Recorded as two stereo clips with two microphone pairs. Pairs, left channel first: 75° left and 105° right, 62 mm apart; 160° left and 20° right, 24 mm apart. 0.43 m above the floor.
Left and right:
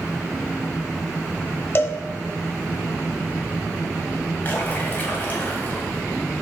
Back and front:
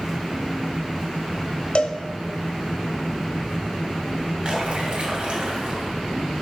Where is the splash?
15° left, 2 m.